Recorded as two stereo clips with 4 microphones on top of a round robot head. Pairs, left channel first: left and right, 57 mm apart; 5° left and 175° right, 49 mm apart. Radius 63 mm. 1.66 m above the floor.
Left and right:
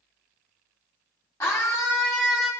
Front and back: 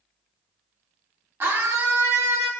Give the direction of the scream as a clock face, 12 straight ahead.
7 o'clock.